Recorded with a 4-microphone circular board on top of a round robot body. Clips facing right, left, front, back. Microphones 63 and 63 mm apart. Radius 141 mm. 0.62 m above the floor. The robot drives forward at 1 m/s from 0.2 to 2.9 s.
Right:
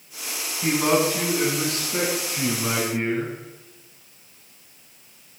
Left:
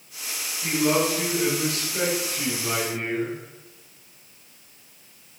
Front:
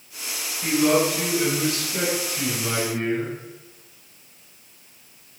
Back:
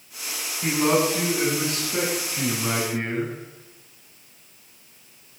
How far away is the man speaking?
About 7 m.